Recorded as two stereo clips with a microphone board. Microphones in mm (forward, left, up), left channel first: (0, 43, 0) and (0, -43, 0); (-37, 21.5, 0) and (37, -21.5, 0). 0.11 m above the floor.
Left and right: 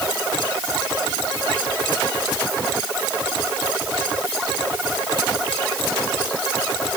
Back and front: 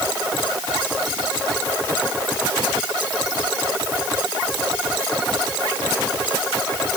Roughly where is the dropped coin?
I don't hear a dropped coin.